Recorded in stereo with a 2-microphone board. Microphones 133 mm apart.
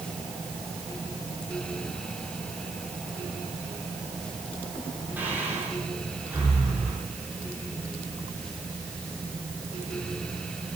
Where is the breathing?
15° right (ahead or behind), 4 m.